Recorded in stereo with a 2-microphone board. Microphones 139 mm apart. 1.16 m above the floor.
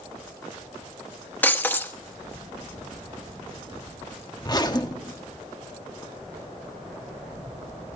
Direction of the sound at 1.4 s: 15° left (ahead or behind).